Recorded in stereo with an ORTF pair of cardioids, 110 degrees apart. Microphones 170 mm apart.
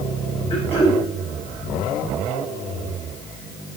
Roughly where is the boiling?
I don't hear boiling.